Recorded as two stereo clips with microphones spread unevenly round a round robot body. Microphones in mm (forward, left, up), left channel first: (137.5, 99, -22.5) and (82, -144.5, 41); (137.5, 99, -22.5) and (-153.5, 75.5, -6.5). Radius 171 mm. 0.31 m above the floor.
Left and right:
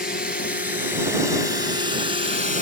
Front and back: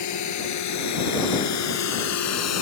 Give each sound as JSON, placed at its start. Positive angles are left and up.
{"t": 0.0, "sound": "a drone", "azimuth_deg": 25}